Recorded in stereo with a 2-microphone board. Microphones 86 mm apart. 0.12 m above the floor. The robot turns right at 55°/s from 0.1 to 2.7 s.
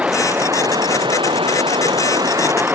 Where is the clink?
I don't hear a clink.